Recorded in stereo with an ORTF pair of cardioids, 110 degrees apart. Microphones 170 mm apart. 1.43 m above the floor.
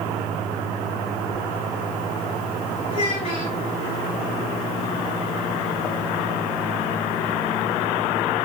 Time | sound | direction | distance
2.9 | a child speaking | 35° left | 2 m